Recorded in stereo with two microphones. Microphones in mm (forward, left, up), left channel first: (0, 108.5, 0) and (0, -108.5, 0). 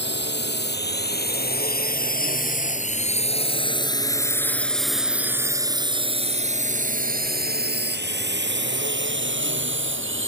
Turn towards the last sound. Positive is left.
turn(degrees=-70)  # may be behind; listen again after turning